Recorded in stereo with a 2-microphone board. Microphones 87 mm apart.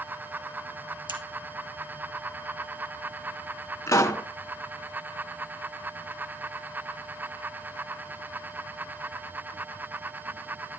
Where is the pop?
40° left (ahead or behind), 0.5 m.